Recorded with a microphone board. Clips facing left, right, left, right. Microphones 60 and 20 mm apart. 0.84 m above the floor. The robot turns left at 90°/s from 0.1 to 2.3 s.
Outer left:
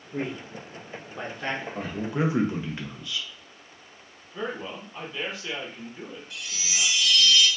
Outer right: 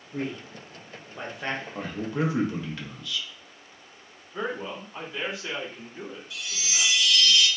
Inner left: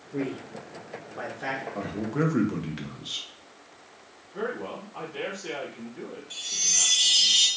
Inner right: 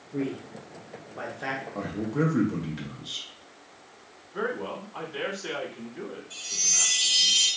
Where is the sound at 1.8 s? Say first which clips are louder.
Outer left 1 dB, inner right 1 dB; 175° right, 0.6 m; by 3.3 s 135° left, 0.6 m.